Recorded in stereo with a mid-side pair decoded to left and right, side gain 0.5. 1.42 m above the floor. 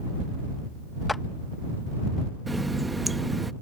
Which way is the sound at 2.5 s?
15° right.